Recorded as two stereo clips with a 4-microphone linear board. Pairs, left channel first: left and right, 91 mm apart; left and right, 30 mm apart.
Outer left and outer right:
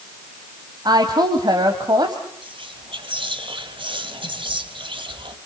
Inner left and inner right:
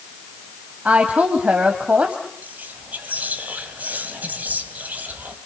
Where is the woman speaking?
50° right (ahead or behind), 2.5 m.